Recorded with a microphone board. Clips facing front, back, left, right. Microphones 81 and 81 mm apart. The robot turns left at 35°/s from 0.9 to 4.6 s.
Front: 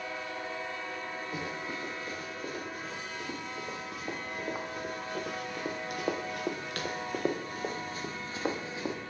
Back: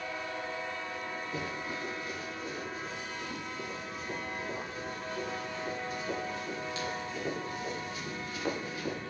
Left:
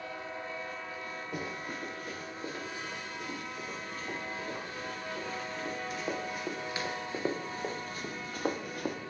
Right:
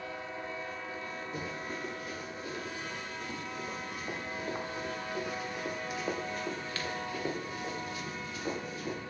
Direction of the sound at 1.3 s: 70° left.